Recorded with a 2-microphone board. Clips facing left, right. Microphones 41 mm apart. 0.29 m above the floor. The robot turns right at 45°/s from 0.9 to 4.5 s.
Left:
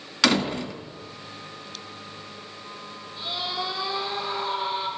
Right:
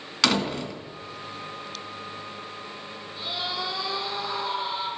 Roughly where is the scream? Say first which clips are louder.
Left 1 dB; ahead.